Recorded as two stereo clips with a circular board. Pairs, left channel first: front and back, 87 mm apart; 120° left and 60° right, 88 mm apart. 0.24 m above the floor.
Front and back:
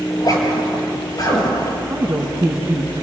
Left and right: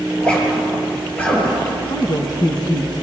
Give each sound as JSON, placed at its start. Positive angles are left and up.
{"t": 0.1, "sound": "a zipper", "azimuth_deg": 45, "distance_m": 4.0}
{"t": 1.9, "sound": "a woman speaking", "azimuth_deg": 120, "distance_m": 2.0}